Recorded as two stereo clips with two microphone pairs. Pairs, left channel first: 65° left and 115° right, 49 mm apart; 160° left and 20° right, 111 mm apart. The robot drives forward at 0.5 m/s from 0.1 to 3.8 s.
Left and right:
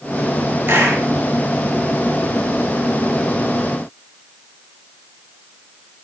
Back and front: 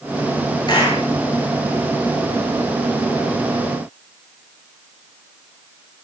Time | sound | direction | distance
0.7 | a clap | 155° right | 9 m